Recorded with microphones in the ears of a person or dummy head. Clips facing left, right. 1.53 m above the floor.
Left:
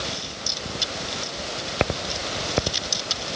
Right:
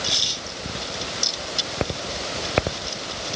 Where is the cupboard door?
I don't hear a cupboard door.